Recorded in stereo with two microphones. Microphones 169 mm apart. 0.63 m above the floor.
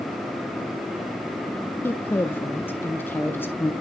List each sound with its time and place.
1.8 s a woman speaking: 10° left (ahead or behind), 0.6 m